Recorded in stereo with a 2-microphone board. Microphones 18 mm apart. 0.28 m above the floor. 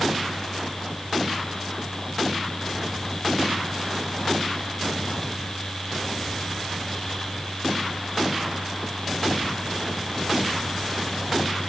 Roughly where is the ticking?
No ticking in this recording.